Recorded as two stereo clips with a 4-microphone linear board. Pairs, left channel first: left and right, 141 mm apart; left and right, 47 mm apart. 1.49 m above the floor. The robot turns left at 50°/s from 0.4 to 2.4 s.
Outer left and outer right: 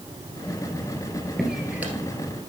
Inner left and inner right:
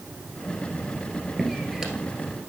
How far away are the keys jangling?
No keys jangling in this recording.